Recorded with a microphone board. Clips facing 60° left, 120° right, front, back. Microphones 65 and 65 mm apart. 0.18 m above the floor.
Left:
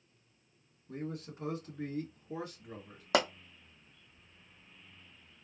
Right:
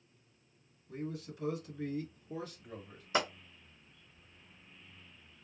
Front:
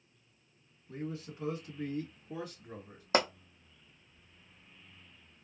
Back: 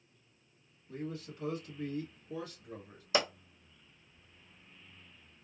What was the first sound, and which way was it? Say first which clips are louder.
A man speaking: even, front 1 dB; 60° left.